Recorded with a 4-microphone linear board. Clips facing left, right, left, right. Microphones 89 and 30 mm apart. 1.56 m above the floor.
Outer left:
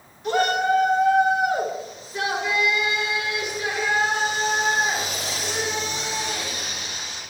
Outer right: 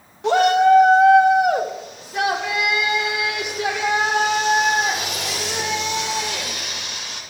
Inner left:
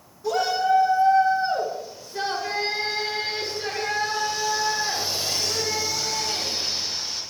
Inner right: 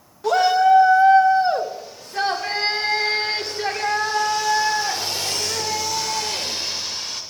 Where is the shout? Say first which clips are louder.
Outer right 7 dB, inner right 7 dB; 85° right, 2 m.